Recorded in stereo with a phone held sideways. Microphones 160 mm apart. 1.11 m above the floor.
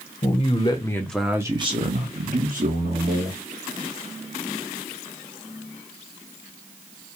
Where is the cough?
I don't hear a cough.